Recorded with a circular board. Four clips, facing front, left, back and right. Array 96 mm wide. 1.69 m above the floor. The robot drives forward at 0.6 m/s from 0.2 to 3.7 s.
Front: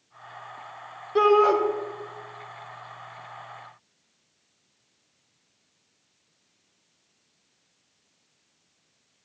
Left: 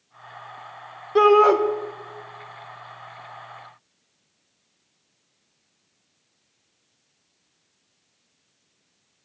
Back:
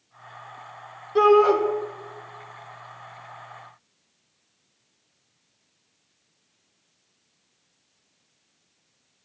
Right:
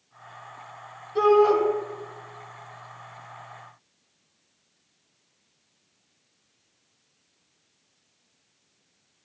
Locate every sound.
1.1 s a shout: 85° left, 1.5 m; by 1.6 s 95° left, 1.4 m